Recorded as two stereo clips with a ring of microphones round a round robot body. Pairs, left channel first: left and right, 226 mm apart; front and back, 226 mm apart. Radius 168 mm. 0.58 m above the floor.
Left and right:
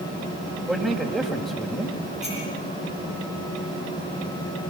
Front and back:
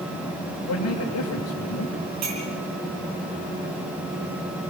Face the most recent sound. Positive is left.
turn(degrees=180)